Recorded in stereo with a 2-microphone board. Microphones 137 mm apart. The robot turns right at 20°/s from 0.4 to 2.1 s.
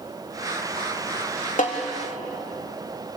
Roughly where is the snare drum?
Left.